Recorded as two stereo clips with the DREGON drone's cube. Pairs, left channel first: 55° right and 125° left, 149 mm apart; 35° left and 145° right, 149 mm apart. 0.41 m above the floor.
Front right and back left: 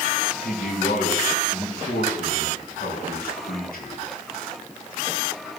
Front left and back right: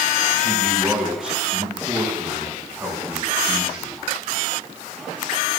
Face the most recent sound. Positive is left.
turn(degrees=-65)